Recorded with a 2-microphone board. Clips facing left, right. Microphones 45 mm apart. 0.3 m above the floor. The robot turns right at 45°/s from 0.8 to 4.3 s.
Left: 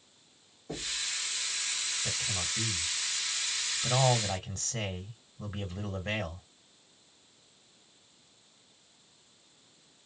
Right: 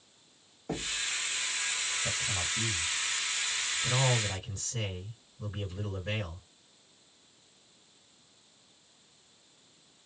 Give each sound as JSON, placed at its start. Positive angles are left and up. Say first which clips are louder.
{"t": 0.7, "sound": "knocking", "louder": "right 3 dB", "side_deg": -55, "distance_m": 1.1}
{"t": 2.0, "sound": "a man speaking", "louder": "right 3 dB", "azimuth_deg": -10, "distance_m": 2.5}